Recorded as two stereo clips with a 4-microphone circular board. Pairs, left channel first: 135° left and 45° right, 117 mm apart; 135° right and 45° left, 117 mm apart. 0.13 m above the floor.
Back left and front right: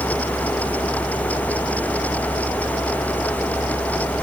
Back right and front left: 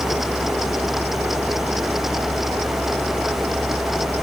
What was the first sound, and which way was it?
Only background noise.